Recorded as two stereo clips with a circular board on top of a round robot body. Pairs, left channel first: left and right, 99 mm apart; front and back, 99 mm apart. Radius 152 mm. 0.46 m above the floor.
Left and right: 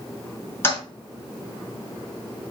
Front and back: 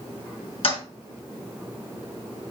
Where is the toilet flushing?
25° left, 4.5 m.